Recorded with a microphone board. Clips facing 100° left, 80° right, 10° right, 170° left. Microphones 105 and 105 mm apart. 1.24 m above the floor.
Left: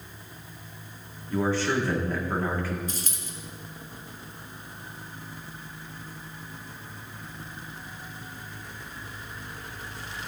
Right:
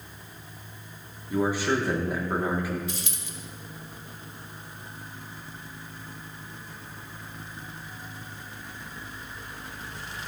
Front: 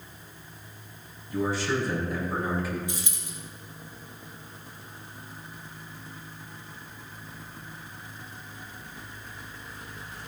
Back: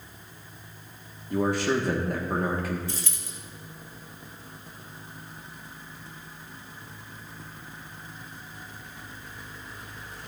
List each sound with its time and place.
1.3 s a man speaking: 155° right, 1.9 m
2.9 s a dropped coin: 60° left, 1.2 m